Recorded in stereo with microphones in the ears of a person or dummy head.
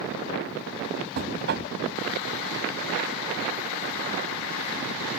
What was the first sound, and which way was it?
Knocking, 55° right (ahead or behind).